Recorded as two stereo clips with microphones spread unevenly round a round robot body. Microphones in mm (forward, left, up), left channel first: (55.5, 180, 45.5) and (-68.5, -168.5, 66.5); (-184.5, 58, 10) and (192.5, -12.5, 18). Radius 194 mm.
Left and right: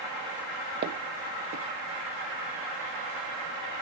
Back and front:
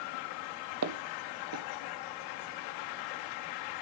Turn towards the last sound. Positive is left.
turn(degrees=-50)